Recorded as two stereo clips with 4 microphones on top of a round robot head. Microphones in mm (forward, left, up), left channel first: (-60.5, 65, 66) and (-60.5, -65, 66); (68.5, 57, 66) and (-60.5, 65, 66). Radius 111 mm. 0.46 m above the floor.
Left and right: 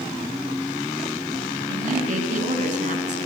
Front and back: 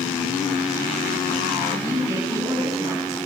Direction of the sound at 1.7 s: 110° right.